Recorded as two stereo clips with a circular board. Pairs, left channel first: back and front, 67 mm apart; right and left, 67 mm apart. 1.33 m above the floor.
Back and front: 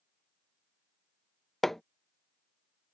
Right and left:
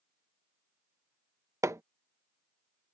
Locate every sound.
1.6 s hammering: 95° left